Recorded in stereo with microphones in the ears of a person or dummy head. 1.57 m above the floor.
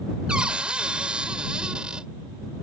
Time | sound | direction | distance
0.3 | a cupboard door | 5° right (ahead or behind) | ?